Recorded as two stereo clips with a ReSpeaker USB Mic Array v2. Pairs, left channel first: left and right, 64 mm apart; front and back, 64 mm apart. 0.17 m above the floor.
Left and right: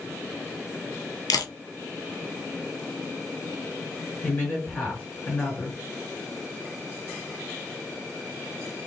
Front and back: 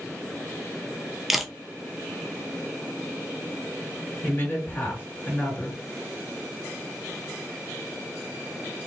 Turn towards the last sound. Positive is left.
turn(degrees=40)